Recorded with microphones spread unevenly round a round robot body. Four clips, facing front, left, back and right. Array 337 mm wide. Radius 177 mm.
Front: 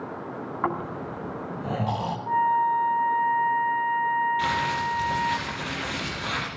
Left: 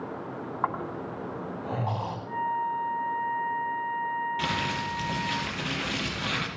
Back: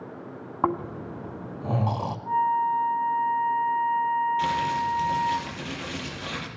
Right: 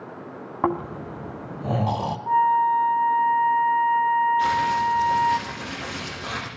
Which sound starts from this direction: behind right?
Snoring, at 0.6 s.